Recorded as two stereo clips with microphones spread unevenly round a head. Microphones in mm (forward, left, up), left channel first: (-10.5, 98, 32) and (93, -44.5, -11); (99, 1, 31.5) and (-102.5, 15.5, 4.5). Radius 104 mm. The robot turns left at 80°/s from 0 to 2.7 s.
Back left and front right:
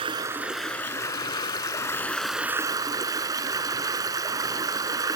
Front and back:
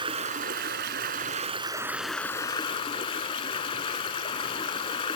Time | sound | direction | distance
0.0 | running water | 120° right | 1.0 m